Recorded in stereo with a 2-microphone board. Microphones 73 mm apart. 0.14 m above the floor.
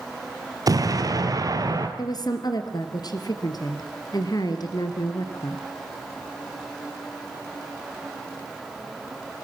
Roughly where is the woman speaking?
Left.